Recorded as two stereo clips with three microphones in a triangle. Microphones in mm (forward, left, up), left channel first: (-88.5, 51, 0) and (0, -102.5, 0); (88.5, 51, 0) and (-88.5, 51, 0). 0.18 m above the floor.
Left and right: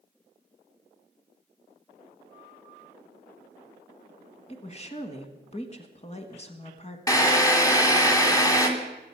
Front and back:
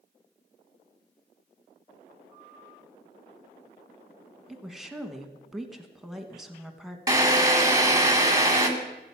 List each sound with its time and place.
4.5 s a woman speaking: 95° left, 1.4 m
7.1 s a drill: 150° left, 1.6 m